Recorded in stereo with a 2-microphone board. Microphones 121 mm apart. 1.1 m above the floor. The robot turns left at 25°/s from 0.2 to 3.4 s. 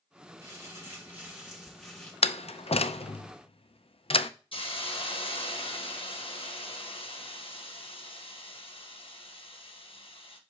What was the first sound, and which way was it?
Crumpling, 145° right.